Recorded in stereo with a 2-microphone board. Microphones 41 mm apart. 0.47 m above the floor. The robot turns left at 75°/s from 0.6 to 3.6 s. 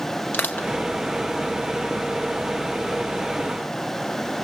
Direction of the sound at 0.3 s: 45° left (ahead or behind).